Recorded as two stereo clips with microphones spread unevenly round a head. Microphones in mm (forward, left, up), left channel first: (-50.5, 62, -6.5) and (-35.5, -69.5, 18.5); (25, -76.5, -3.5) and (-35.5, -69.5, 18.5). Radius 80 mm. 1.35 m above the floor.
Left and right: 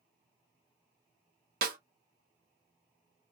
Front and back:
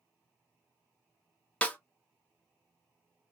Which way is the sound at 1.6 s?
80° right.